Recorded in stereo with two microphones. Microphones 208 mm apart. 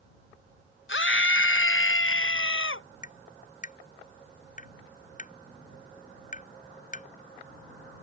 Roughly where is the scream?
Left.